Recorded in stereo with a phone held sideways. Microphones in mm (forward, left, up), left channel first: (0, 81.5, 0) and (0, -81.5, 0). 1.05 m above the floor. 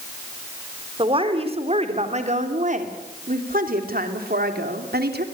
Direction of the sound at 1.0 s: 35° right (ahead or behind).